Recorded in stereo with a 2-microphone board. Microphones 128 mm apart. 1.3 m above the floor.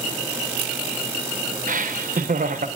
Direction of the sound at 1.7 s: 75° right (ahead or behind).